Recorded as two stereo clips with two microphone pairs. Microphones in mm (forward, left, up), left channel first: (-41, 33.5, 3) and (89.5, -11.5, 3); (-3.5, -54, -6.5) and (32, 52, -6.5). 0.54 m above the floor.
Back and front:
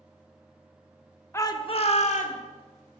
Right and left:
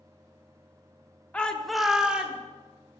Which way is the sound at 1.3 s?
165° right.